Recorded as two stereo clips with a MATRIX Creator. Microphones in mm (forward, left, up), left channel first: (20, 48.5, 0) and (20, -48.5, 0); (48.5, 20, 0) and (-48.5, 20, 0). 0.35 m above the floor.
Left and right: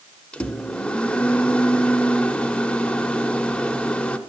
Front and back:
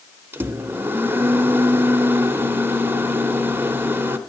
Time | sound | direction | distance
0.3 | a microwave | 155° left | 0.6 m